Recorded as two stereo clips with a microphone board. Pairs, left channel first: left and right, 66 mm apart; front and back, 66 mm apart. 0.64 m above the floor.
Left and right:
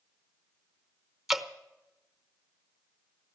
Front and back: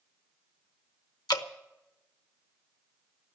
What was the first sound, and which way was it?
Dripping, 5° right.